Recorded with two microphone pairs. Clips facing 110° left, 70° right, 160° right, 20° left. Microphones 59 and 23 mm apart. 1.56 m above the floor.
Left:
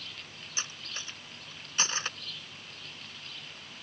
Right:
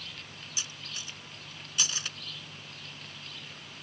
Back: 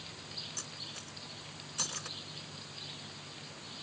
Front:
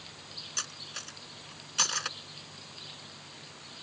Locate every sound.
0.6 s cutlery clinking: 55° left